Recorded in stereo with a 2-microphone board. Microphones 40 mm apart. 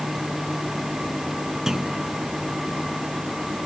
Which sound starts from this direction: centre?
A clunk, at 1.7 s.